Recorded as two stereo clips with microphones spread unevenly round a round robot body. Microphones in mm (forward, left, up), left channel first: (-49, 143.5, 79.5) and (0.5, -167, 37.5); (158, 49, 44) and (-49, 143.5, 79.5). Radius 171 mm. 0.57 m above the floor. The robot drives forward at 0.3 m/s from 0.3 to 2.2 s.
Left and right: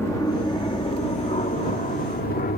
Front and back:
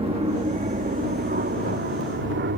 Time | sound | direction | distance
0.0 | an aircraft | 175° right | ?